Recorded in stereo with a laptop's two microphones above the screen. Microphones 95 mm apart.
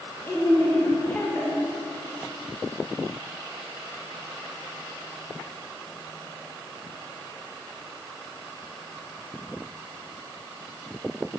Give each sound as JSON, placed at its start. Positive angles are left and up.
{"t": 0.3, "sound": "a woman speaking", "side_deg": 20, "distance_m": 1.0}